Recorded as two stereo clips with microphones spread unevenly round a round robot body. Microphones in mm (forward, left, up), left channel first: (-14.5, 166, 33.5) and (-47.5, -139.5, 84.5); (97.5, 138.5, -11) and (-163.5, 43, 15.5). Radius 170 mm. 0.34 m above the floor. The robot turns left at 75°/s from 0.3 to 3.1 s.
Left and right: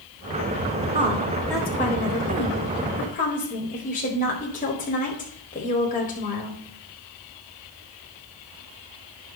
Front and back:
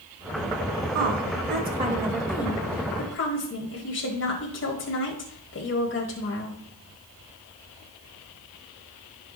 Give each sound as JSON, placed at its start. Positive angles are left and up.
{"t": 0.9, "sound": "a woman speaking", "azimuth_deg": -160, "distance_m": 1.6}